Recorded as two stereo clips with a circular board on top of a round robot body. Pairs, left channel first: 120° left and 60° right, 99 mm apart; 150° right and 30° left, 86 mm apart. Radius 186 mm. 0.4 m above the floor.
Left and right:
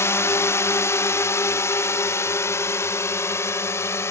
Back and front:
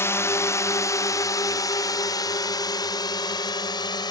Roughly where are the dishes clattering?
No dishes clattering in this recording.